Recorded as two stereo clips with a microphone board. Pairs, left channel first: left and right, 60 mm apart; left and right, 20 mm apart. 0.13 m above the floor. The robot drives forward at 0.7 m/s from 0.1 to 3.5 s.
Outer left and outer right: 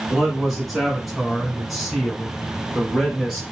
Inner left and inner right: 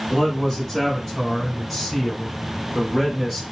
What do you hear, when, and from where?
0.1 s a man speaking: centre (ahead or behind), 1.8 m